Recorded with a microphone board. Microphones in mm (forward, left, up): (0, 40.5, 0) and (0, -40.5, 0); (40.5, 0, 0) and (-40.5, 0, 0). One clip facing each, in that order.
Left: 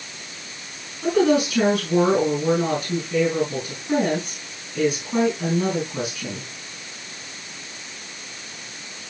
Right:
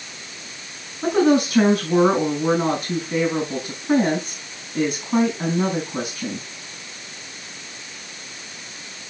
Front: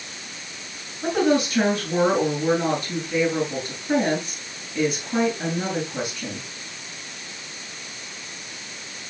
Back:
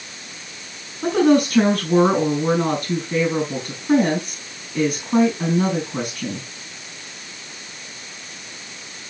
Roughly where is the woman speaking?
Behind right.